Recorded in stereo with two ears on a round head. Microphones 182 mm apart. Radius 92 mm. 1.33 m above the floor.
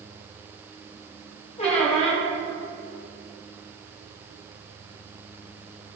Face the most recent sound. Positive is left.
turn(degrees=35)  # may be behind; listen again after turning